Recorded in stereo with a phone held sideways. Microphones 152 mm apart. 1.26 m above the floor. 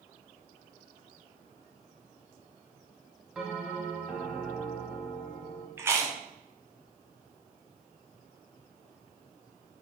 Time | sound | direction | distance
3.4 | a bell | centre (ahead or behind) | 0.7 m
5.8 | chewing | 15° right (ahead or behind) | 0.6 m